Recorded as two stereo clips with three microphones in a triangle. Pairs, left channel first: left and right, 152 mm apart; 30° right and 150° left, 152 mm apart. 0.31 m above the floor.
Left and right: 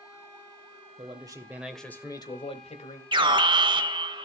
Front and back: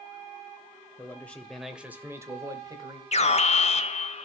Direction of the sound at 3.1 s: 45° right.